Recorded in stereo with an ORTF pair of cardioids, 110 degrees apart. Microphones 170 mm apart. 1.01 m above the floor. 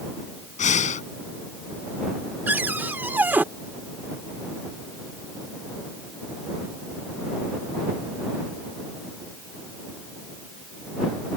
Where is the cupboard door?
10° right.